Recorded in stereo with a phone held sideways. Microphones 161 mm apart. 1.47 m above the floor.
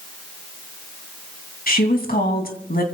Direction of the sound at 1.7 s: 65° left (ahead or behind).